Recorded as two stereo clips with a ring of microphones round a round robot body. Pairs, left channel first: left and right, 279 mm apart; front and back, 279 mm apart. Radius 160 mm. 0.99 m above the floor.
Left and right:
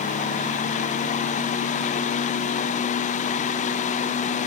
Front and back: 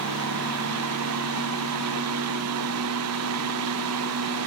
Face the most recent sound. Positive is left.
No sound to turn to.